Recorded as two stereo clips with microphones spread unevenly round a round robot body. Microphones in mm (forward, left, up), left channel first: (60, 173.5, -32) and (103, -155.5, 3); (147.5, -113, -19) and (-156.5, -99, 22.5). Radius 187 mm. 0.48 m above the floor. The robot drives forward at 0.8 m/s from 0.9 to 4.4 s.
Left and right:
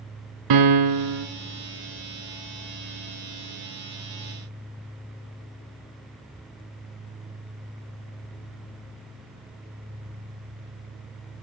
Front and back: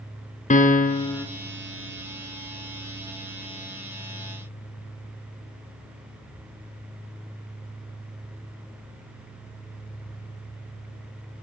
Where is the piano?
70° right, 1.0 m; by 1.3 s 90° right, 0.9 m.